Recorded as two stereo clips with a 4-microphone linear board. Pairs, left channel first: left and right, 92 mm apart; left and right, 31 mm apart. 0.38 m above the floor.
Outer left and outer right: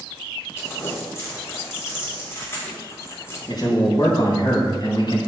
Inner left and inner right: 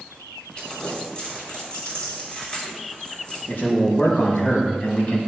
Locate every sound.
0.6 s crumpling: 30° left (ahead or behind), 4 m
3.5 s a man speaking: 55° left (ahead or behind), 3.5 m